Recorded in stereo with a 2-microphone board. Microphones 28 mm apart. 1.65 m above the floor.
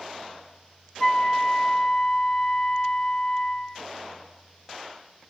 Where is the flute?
15° left (ahead or behind), 1.5 m.